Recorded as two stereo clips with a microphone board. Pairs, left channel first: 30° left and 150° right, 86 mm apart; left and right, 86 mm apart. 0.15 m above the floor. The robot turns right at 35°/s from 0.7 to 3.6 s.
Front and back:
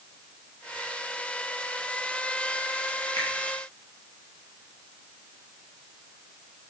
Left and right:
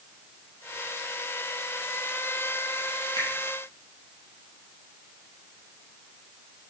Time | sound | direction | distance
3.2 | a finger snap | 65° left | 3 m